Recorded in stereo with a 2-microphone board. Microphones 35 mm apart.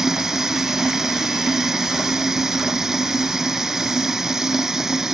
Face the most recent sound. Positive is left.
turn(degrees=-15)  # may be behind; listen again after turning